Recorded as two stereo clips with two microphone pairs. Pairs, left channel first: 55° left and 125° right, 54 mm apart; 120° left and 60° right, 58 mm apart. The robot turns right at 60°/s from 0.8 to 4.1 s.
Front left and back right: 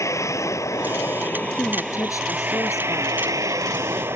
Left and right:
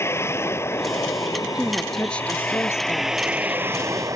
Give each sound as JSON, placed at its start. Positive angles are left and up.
{"t": 0.0, "sound": "a vehicle", "azimuth_deg": 80}
{"t": 1.6, "sound": "a woman speaking", "azimuth_deg": 10}